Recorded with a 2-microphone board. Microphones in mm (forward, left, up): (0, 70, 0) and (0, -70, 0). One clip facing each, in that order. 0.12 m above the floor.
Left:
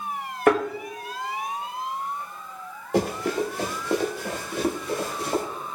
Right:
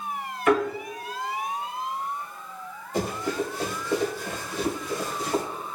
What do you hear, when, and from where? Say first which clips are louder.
0.5 s a thud: left 2 dB; 55° left (ahead or behind), 2.0 m
2.9 s running footsteps: left 4 dB; 80° left, 1.2 m; by 5.4 s 60° left (ahead or behind), 2.5 m